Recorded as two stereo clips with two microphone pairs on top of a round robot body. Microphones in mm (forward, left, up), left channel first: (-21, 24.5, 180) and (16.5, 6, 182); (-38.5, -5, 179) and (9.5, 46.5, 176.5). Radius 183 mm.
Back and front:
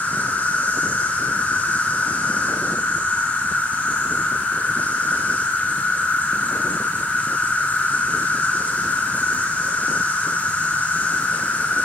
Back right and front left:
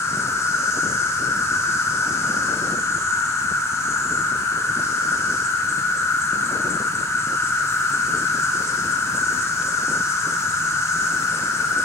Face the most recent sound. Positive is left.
turn(degrees=-170)